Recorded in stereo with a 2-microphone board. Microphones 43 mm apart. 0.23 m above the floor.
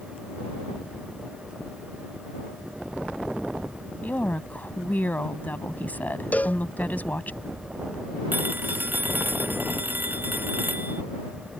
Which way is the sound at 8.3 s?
50° right (ahead or behind).